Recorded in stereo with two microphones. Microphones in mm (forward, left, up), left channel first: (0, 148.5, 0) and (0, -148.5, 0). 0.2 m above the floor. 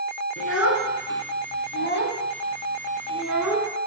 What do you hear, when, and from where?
0.4 s a child speaking: 50° left (ahead or behind), 1.8 m; by 3.7 s 10° right (ahead or behind), 1.4 m